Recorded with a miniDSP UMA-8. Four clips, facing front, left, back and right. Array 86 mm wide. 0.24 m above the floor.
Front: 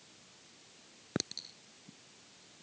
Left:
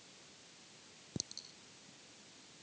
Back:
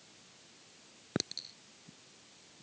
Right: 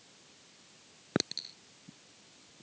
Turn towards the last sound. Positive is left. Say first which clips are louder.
# right 15 dB, back 1 dB
turn(degrees=-90)